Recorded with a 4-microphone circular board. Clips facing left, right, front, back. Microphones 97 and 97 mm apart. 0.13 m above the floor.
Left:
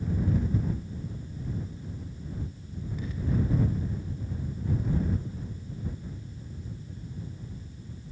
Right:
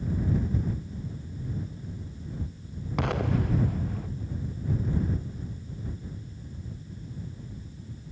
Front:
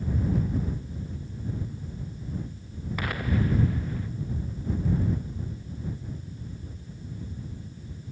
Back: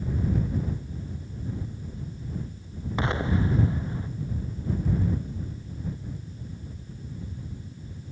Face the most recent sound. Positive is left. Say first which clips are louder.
# right 4 dB, back 2 dB
turn(degrees=-115)